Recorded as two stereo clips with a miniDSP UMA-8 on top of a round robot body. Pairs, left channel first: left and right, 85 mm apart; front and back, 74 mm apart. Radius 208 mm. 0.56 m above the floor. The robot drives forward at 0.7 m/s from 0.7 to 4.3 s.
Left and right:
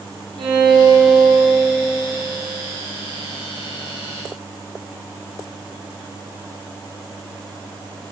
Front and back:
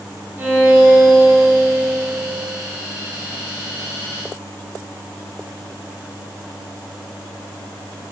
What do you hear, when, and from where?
0.4 s a violin: 115° right, 3 m; by 2.0 s 130° right, 3.5 m